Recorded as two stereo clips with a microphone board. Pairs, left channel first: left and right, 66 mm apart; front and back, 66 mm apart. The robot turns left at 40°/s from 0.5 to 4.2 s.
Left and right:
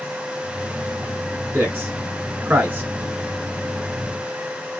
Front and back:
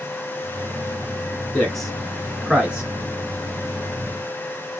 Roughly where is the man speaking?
Right.